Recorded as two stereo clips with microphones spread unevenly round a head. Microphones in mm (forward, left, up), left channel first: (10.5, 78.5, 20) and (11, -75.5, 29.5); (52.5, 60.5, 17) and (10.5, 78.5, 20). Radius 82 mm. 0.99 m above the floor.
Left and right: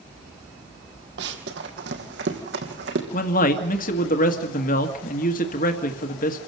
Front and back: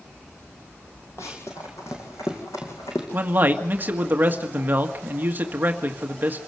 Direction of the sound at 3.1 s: 110° left.